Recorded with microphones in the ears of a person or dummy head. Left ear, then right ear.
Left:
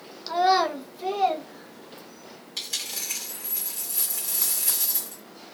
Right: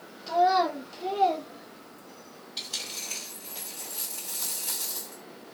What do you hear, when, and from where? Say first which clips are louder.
0.3 s a child speaking: left 2 dB; 45° left (ahead or behind), 0.8 m; by 2.4 s 55° left (ahead or behind), 1.6 m
2.6 s a dropped coin: left 3 dB; 45° left (ahead or behind), 1.8 m